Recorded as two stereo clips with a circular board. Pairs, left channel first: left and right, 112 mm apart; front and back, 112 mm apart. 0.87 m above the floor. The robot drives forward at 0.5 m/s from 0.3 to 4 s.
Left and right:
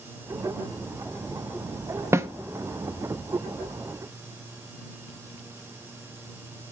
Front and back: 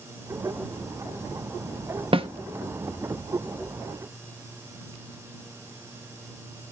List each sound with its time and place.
2.1 s a snare drum: 150° right, 0.7 m; by 2.3 s 155° right, 0.8 m